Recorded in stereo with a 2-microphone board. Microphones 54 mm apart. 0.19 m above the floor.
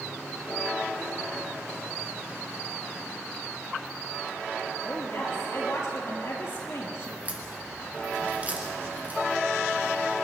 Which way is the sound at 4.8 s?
60° left (ahead or behind).